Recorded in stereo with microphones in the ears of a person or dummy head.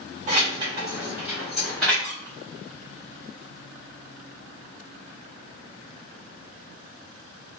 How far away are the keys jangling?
About 1.0 m.